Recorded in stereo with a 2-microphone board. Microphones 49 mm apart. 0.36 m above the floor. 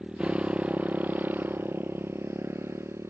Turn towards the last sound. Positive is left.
turn(degrees=-65)  # may be behind; listen again after turning